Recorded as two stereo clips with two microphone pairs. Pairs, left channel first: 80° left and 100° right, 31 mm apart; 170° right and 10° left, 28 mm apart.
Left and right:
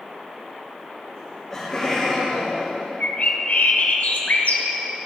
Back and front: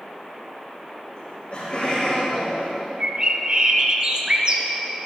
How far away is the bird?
About 1.0 m.